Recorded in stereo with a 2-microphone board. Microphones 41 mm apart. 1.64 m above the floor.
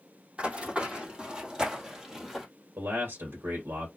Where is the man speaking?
85° right, 1.9 m.